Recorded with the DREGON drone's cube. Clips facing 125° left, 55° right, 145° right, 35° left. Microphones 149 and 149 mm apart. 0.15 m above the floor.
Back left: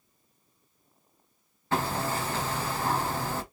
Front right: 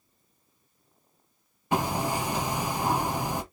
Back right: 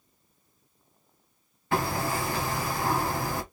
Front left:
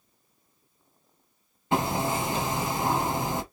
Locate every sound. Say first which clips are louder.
1.7 s hammering: front right 2 dB, front left 2 dB; straight ahead, 0.9 m